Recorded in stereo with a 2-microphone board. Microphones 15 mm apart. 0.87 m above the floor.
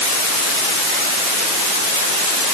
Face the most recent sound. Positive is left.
No sound to turn to.